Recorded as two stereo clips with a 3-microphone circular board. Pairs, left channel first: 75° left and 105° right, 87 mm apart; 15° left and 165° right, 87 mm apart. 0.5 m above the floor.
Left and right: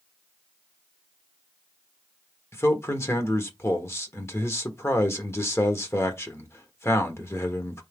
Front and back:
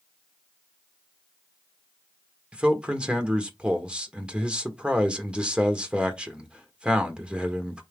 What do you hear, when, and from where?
2.5 s a man speaking: 120° left, 1.2 m